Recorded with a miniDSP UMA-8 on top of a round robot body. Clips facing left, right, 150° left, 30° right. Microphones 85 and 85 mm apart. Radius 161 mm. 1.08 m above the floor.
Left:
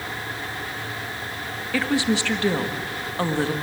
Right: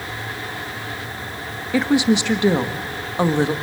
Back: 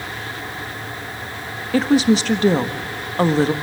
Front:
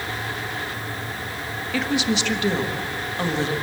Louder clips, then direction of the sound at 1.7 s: Right 5 dB, back 8 dB; 160° right.